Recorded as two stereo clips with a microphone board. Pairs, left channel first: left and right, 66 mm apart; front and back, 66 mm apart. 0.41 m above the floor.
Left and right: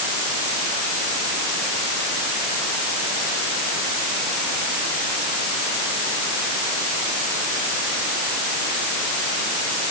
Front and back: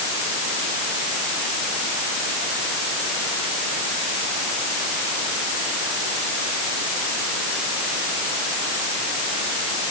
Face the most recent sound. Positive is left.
No sound to turn to.